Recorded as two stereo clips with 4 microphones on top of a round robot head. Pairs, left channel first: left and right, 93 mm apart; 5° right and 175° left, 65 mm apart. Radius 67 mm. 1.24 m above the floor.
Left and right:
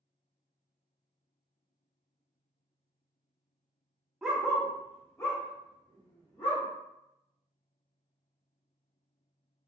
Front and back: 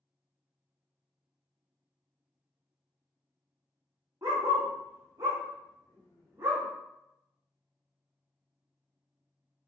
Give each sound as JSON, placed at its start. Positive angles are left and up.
{"t": 4.2, "sound": "a dog barking", "azimuth_deg": -170, "distance_m": 0.7}